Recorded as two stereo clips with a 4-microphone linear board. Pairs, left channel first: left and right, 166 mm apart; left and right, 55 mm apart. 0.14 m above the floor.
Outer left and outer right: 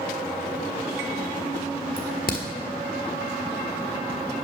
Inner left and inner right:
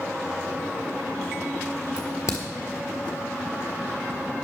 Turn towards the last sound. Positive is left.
turn(degrees=65)  # may be behind; listen again after turning